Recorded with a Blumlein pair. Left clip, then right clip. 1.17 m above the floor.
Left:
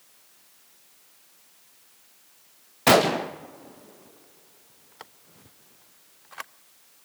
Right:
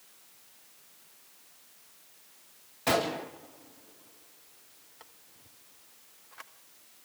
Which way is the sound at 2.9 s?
30° left.